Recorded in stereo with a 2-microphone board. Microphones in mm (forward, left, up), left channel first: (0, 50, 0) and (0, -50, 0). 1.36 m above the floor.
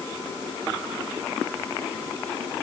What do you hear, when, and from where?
Only background noise.